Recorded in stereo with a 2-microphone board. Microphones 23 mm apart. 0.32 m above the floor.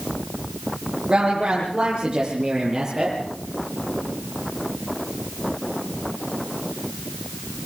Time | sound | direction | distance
1.1 | a woman speaking | 40° right (ahead or behind) | 9 m